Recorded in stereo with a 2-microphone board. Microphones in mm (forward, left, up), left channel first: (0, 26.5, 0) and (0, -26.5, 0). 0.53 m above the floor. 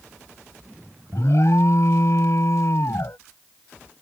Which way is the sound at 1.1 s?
65° left (ahead or behind).